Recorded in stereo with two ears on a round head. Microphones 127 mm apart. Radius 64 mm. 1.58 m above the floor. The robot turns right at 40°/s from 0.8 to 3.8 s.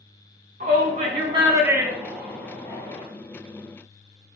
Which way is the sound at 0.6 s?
60° right (ahead or behind).